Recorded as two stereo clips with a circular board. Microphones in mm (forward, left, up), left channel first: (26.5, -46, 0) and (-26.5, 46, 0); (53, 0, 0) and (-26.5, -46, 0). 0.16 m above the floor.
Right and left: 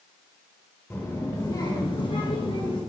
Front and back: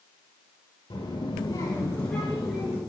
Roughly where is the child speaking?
Ahead.